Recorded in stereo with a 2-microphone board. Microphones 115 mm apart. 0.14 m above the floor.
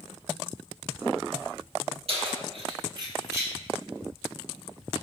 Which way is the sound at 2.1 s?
60° right (ahead or behind).